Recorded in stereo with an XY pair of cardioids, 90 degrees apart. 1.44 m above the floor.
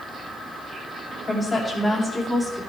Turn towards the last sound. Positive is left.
turn(degrees=10)